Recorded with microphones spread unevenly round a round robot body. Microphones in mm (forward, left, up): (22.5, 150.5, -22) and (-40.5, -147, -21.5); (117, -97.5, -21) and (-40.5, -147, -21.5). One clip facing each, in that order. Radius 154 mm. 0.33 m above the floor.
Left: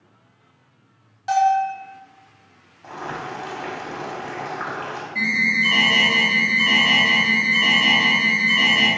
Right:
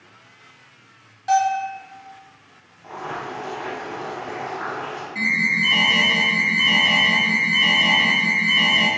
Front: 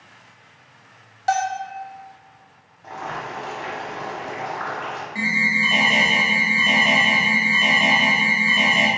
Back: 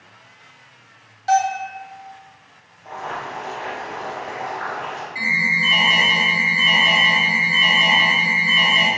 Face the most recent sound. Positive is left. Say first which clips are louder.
# left 1 dB, front 3 dB
turn(degrees=-5)